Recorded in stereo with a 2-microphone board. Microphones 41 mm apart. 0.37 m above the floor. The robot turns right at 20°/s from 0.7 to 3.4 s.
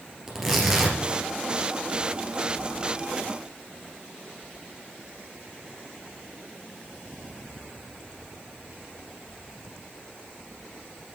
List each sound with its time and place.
0.3 s tearing paper: 10° right (ahead or behind), 2.5 m; by 1.0 s 15° right (ahead or behind), 2.5 m